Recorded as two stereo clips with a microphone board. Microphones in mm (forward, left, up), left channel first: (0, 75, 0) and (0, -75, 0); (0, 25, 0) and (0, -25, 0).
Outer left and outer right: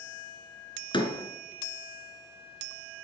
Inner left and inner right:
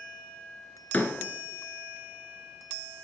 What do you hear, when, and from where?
0.9 s a door slam: 30° left (ahead or behind), 1.7 m